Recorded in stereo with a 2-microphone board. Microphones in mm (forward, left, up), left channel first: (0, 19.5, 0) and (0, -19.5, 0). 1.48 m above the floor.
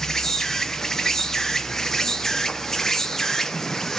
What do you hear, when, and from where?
0.0 s an insect: 10° left (ahead or behind), 0.9 m